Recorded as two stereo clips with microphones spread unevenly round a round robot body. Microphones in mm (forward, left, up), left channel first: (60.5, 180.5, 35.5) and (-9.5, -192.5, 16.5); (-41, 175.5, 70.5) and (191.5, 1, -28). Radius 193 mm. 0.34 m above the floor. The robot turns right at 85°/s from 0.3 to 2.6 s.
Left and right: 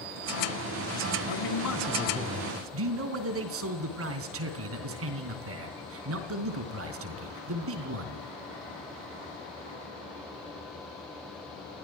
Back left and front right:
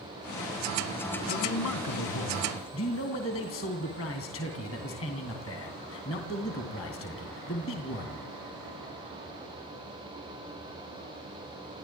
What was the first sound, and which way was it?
A man speaking, 90° left.